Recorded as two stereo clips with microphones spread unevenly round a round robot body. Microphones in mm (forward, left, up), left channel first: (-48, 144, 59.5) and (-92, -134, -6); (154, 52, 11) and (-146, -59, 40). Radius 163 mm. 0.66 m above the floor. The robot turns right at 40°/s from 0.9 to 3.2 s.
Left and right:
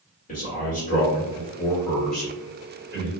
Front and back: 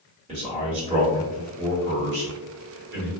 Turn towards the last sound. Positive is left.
turn(degrees=-130)